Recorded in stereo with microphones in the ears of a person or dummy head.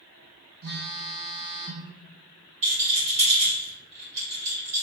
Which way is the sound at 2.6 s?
35° right (ahead or behind).